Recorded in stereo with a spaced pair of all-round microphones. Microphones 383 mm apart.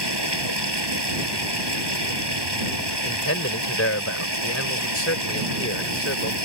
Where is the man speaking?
35° left (ahead or behind).